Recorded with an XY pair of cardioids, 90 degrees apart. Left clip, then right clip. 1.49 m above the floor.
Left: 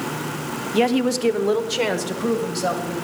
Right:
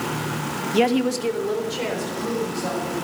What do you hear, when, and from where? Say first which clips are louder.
0.7 s a woman speaking: left 1 dB; 5° right, 0.8 m; by 2.9 s 75° left, 3 m